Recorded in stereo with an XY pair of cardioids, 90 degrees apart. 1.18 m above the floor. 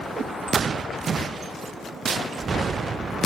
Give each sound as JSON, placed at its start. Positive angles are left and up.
{"t": 0.1, "sound": "a whoosh", "azimuth_deg": -70, "distance_m": 0.8}